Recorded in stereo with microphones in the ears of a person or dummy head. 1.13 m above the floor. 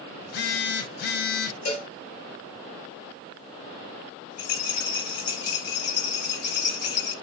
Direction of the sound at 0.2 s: 50° left (ahead or behind).